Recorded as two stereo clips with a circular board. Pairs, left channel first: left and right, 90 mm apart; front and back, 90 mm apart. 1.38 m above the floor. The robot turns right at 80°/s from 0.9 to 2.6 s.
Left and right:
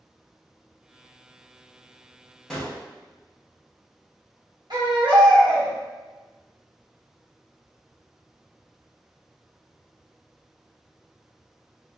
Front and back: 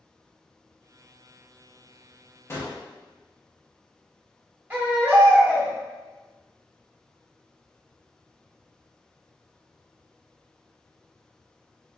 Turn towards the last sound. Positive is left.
turn(degrees=-115)